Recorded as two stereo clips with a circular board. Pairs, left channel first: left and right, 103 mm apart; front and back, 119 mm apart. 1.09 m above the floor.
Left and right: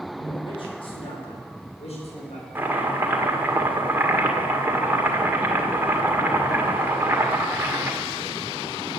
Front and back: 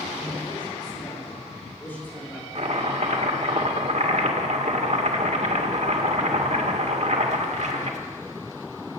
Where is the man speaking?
45° left, 6 m; by 2.5 s 85° left, 5 m.